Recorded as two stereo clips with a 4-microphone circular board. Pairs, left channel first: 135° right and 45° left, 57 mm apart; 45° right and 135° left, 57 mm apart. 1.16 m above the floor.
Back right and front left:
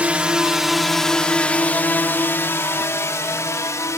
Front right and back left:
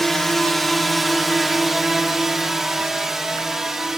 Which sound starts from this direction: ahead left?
A drone, at 0.0 s.